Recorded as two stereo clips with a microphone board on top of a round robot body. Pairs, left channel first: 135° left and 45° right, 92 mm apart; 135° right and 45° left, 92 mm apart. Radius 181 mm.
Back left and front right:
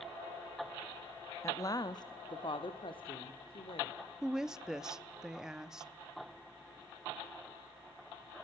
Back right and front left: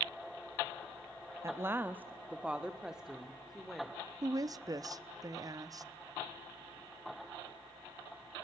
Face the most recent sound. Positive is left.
turn(degrees=35)